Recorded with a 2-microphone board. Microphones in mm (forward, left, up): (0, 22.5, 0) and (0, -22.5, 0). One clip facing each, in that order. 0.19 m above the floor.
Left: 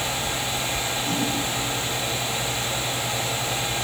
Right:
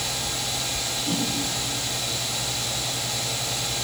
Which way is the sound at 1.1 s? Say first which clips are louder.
Even; 10° right (ahead or behind).